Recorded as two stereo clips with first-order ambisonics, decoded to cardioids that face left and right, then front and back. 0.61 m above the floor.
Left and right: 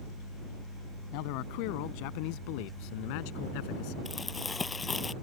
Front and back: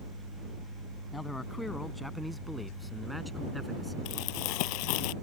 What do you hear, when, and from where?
1.1 s a man speaking: 80° left; by 4.0 s 95° left
4.0 s crumpling: 15° left